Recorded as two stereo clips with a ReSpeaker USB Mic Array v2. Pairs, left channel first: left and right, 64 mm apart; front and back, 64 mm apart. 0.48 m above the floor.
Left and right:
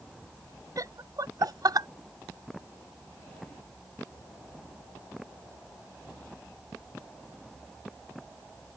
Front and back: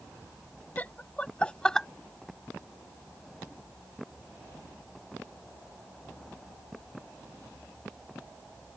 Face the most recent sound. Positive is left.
turn(degrees=-80)